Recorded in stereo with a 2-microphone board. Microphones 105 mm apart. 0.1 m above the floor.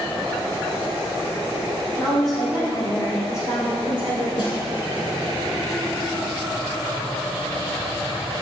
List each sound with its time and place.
2.0 s a woman speaking: 5° left (ahead or behind), 4 m; by 4.3 s 15° right (ahead or behind), 5.5 m
4.4 s a snare drum: 45° left (ahead or behind), 3.5 m